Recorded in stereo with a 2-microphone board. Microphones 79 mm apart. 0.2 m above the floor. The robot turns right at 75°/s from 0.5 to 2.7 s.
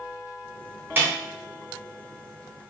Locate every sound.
1.0 s a snare drum: 30° right (ahead or behind), 2.5 m; by 1.1 s 35° right (ahead or behind), 2.5 m